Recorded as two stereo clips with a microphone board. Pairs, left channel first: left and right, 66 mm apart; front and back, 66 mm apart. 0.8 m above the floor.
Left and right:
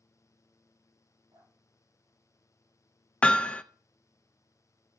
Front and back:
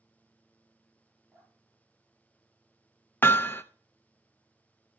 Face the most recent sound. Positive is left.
turn(degrees=35)